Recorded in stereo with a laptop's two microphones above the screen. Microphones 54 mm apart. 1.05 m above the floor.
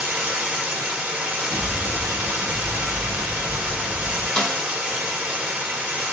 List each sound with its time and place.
0.0 s running water: 15° right (ahead or behind), 1.3 m
1.5 s an explosion: 65° right (ahead or behind), 1.2 m
4.4 s a snare drum: 15° left (ahead or behind), 0.7 m